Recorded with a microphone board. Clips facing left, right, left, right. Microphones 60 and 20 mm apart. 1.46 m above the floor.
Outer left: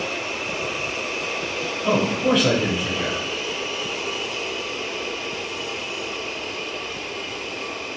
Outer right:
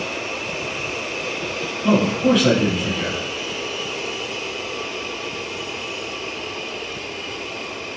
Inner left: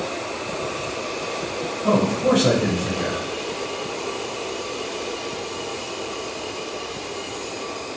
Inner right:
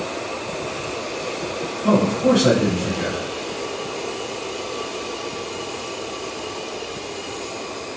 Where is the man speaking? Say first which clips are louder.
Outer right 3 dB, inner right 2 dB; 5° left (ahead or behind), 1.4 m.